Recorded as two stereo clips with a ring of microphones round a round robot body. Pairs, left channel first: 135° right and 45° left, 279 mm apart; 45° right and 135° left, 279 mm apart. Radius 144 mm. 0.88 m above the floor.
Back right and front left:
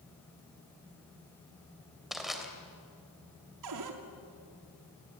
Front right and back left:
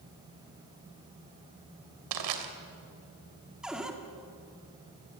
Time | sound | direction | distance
2.1 | crushing | 135° left | 3 m
3.6 | a cupboard door | 50° left | 2.5 m